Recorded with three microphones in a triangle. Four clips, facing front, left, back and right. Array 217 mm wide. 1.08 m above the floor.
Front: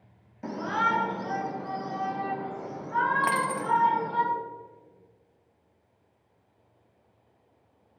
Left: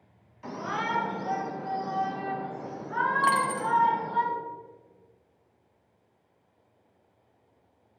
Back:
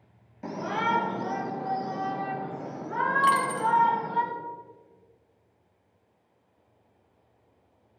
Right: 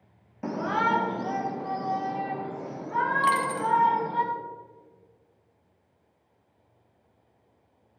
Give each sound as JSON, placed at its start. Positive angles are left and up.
{"t": 0.4, "sound": "a shout", "azimuth_deg": -90, "distance_m": 1.0}
{"t": 3.2, "sound": "a dropped coin", "azimuth_deg": 25, "distance_m": 0.8}